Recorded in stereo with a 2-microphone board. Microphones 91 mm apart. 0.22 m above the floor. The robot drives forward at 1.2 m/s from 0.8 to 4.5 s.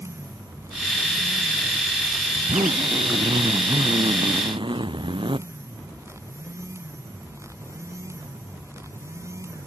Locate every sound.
2.3 s a zipper: 75° right (ahead or behind); by 5.4 s 65° right (ahead or behind)